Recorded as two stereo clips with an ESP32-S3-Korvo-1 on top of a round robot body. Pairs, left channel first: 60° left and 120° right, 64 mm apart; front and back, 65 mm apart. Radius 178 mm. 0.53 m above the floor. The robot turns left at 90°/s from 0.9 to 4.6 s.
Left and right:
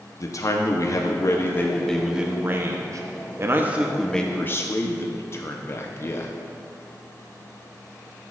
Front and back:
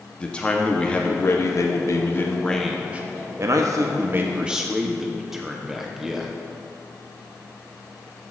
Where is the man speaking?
70° left, 0.9 m; by 6.3 s 100° left, 0.9 m.